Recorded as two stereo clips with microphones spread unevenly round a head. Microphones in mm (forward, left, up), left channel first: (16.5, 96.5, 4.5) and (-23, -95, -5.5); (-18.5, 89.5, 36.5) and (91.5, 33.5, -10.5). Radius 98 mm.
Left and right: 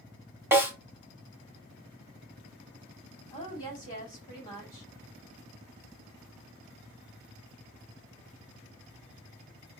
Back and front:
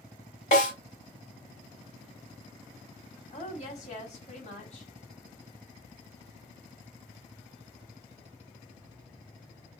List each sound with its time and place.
0.5 s a snare drum: straight behind, 1.8 m
3.3 s a woman speaking: 145° left, 1.9 m